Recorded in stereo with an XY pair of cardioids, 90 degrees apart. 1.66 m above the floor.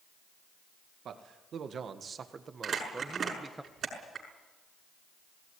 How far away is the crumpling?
About 6.5 m.